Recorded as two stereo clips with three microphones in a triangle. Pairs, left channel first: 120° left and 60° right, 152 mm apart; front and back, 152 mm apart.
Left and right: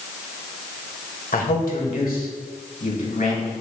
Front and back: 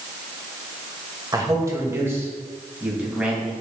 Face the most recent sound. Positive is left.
turn(degrees=95)